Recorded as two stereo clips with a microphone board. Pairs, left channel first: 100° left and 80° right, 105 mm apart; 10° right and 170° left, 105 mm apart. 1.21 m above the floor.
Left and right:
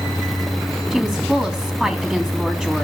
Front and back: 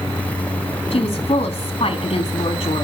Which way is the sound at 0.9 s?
10° left.